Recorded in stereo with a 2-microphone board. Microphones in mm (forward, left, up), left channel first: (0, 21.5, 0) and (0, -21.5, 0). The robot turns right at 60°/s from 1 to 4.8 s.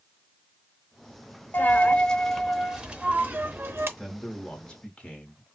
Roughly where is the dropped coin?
Behind left.